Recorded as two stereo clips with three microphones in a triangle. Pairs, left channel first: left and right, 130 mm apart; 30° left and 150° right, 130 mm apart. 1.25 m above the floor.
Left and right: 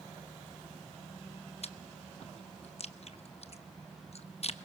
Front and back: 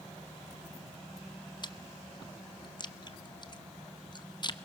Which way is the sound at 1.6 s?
75° left.